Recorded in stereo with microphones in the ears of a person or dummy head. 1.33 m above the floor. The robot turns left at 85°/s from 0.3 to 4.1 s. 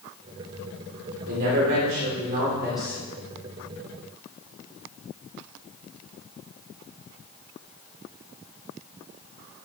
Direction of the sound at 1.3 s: 50° right.